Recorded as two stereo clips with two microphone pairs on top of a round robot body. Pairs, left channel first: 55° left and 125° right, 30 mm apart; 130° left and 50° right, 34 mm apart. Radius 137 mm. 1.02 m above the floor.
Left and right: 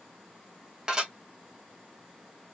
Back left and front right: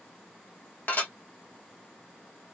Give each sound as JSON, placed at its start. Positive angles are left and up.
{"t": 0.9, "sound": "dishes clattering", "azimuth_deg": 170, "distance_m": 1.5}